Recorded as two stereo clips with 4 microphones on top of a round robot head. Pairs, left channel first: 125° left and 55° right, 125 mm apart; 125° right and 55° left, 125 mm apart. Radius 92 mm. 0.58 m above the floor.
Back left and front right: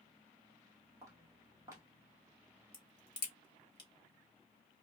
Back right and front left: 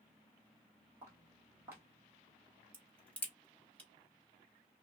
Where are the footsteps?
5° right, 0.5 m.